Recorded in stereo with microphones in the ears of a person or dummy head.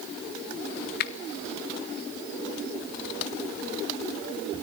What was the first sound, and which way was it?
A finger snap, 55° left (ahead or behind).